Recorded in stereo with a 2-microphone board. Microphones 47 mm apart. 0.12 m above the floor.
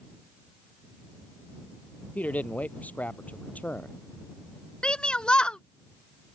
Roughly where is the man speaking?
Left.